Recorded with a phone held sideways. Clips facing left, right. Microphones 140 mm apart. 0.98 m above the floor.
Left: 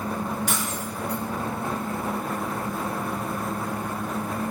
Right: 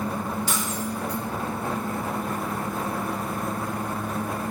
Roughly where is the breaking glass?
Left.